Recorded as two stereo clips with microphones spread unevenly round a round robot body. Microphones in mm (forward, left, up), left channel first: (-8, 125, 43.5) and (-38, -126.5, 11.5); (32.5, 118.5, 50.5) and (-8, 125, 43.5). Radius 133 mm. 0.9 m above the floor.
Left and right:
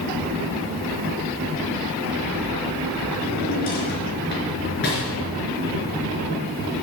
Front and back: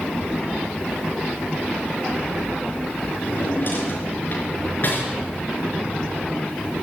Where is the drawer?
30° left, 4.5 m.